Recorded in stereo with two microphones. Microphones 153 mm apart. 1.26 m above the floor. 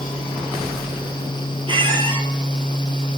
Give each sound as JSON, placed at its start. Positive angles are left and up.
{"t": 1.7, "sound": "a squeak", "side_deg": -35, "distance_m": 2.0}